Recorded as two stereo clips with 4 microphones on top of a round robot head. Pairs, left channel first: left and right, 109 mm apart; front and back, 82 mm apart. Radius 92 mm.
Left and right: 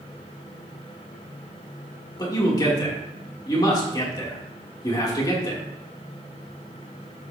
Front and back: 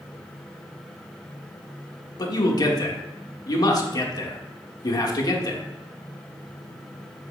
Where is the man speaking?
30° left, 1.6 m.